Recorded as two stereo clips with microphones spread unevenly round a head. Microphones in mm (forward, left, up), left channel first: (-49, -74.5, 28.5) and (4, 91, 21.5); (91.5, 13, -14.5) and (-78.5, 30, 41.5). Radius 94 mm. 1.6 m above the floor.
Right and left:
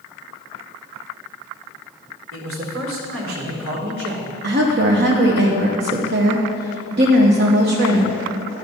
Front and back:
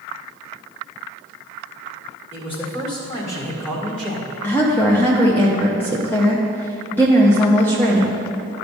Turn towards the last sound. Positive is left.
turn(degrees=85)